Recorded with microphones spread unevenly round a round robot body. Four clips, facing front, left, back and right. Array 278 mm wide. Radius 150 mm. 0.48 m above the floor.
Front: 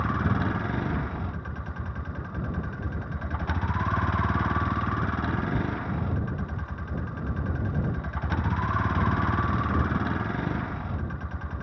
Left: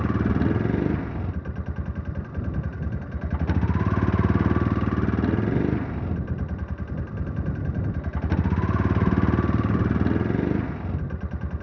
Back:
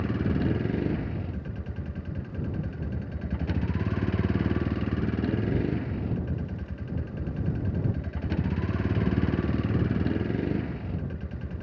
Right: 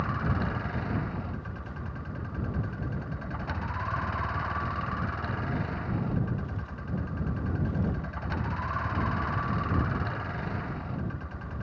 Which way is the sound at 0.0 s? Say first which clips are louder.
Left 7 dB, even; 100° left.